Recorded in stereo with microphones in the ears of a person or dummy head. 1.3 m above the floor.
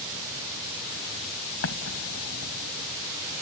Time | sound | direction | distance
1.6 | an explosion | 90° left | ?